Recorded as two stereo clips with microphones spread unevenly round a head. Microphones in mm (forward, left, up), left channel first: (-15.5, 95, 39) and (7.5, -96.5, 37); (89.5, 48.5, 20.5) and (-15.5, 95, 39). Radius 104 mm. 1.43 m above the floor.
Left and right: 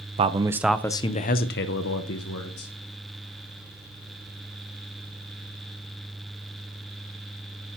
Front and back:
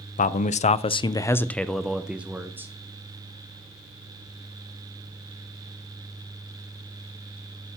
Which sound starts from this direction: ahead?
A man speaking, at 0.2 s.